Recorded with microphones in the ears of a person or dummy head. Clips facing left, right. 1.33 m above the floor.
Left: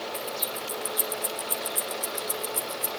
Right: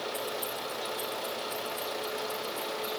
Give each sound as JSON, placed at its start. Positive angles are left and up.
{"t": 0.1, "sound": "keys jangling", "side_deg": 10, "distance_m": 1.2}